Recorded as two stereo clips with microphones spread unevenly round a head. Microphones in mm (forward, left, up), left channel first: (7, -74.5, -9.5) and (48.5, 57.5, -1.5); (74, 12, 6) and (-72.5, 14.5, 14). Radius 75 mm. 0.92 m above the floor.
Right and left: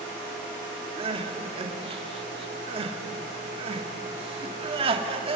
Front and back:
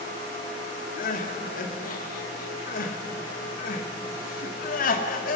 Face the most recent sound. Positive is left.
turn(degrees=25)